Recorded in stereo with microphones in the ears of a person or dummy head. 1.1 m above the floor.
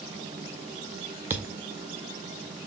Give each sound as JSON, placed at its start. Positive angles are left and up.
{"t": 1.3, "sound": "a thud", "side_deg": -10, "distance_m": 0.6}